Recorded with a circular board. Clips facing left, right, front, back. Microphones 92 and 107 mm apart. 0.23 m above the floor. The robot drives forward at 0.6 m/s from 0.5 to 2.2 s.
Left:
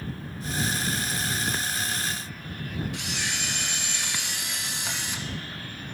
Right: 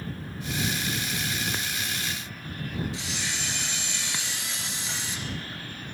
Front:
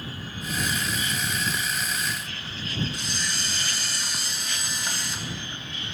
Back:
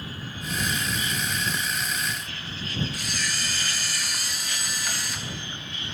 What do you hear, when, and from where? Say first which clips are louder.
2.9 s a camera shutter: left 1 dB, even; 65° left, 1.7 m